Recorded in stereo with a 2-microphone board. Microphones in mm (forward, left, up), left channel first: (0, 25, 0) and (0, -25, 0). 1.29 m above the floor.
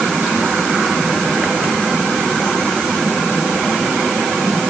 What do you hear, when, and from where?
Only background noise.